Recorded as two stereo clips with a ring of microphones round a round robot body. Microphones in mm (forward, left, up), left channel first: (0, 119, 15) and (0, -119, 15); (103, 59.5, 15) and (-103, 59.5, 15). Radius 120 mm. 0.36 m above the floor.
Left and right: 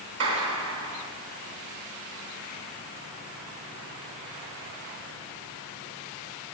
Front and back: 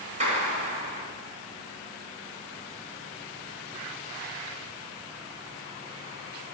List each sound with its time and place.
0.2 s a clap: 120° right, 3 m